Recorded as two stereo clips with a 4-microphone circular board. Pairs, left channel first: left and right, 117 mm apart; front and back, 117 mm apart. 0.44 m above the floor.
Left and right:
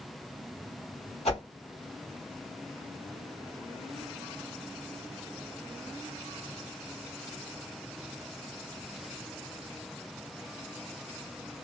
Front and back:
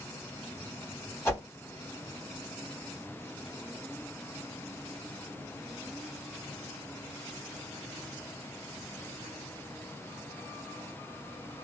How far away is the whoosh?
About 2.5 m.